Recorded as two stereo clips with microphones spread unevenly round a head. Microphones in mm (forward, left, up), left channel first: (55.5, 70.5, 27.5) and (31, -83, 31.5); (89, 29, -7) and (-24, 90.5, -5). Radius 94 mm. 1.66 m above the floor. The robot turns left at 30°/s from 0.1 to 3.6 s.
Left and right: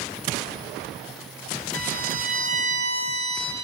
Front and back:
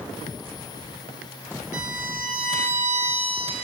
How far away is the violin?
About 4 m.